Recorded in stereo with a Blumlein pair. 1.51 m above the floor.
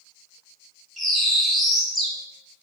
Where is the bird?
10° left, 1.2 m.